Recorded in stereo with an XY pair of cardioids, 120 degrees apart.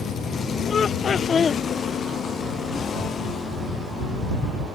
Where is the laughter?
40° left.